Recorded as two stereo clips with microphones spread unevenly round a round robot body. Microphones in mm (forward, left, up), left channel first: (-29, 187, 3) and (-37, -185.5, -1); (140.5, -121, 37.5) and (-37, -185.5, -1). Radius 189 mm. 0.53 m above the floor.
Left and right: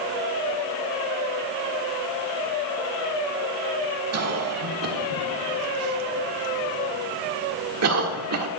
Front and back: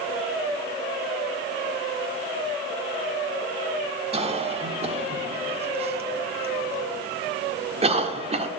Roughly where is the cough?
Behind right.